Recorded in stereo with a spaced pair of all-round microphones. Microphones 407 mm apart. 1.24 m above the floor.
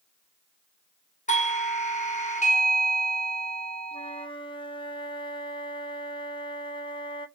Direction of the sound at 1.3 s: 15° left (ahead or behind).